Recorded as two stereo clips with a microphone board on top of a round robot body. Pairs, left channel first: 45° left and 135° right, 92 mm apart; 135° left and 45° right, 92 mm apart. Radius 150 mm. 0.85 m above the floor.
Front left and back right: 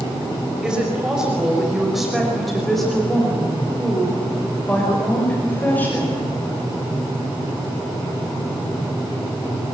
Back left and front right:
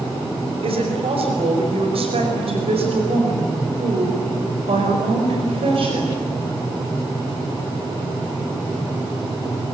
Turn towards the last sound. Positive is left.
turn(degrees=-25)